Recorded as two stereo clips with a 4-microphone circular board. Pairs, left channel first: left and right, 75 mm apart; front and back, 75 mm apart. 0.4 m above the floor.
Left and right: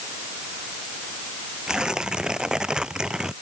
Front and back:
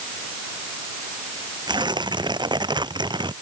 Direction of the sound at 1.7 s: 170° right.